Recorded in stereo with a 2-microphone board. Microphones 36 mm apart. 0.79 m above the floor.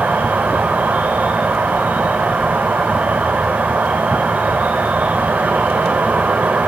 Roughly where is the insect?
Right.